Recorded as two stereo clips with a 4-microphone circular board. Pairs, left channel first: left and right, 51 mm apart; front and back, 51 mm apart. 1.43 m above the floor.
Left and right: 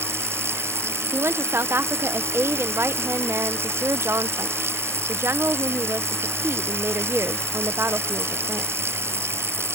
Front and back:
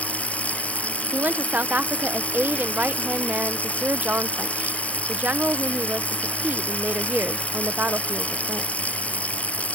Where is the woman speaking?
125° right.